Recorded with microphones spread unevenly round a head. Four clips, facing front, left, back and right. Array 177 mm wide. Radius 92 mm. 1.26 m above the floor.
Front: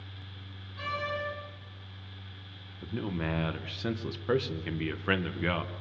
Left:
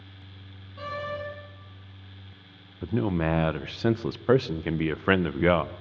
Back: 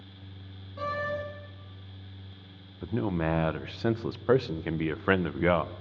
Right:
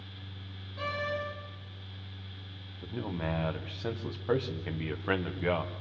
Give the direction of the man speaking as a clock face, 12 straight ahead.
9 o'clock.